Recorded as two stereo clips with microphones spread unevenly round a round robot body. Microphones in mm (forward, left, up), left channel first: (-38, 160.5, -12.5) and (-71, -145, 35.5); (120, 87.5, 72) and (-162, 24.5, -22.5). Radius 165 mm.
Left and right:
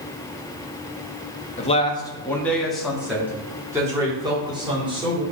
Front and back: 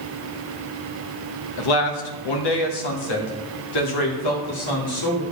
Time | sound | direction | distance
1.6 | a man speaking | 20° left | 1.3 m